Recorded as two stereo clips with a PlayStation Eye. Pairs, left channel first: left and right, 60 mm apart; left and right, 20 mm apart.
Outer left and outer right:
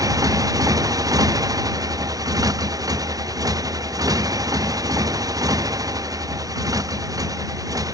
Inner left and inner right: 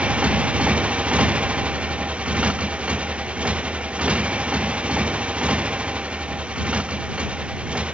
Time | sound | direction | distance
0.0 | a motorcycle | 80° right | ?